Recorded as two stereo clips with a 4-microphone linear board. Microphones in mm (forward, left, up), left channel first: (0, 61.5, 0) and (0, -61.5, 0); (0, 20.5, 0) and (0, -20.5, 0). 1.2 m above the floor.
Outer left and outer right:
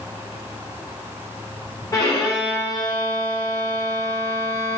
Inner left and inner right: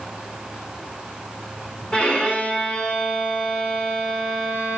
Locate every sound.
1.9 s a violin: 35° left (ahead or behind), 1.2 m